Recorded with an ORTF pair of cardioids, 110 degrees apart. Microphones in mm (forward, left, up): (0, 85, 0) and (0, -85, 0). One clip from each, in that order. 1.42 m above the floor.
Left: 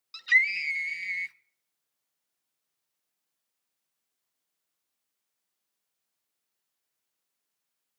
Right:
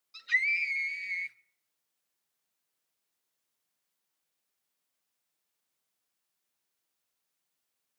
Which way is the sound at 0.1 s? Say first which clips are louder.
Left 5 dB; 70° left.